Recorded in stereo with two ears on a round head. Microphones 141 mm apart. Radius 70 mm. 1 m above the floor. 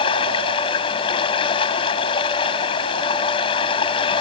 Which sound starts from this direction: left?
Running water, at 0.0 s.